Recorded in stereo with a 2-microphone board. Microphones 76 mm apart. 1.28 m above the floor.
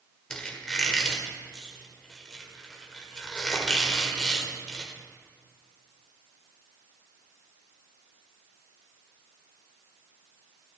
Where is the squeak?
10° left (ahead or behind), 1.3 m.